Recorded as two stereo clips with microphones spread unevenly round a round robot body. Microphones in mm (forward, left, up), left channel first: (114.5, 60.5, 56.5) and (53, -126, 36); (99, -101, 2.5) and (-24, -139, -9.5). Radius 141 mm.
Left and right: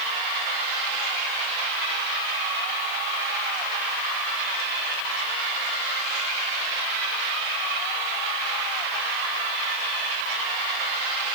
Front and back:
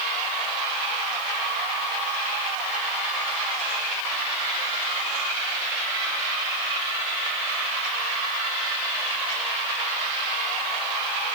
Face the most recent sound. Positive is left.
No sound to turn to.